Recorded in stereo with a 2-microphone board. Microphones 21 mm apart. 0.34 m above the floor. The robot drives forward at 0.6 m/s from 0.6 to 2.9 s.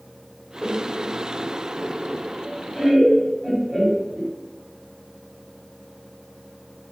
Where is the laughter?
10° right (ahead or behind), 1.3 m; by 4.3 s 5° right (ahead or behind), 2.5 m.